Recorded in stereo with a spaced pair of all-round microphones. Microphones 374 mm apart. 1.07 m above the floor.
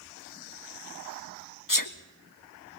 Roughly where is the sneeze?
Left.